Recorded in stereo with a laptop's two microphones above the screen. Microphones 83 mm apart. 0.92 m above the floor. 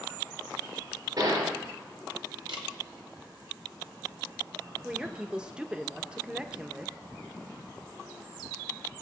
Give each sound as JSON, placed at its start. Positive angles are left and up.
{"t": 1.2, "sound": "a gunshot", "side_deg": -60, "distance_m": 3.0}
{"t": 2.5, "sound": "a camera shutter", "side_deg": -75, "distance_m": 1.3}
{"t": 4.8, "sound": "a woman speaking", "side_deg": -10, "distance_m": 0.9}